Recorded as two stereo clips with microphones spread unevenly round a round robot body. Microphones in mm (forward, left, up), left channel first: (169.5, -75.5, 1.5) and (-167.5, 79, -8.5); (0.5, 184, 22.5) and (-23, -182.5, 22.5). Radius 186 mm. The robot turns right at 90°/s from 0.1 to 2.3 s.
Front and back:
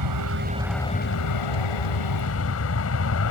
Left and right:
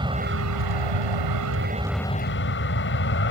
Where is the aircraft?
170° right; by 3.3 s 25° left.